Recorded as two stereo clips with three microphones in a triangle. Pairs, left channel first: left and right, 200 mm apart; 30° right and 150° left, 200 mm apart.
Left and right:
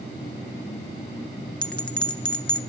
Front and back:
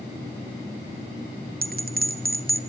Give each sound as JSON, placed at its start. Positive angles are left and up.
{"t": 1.6, "sound": "a bell", "azimuth_deg": 170, "distance_m": 0.8}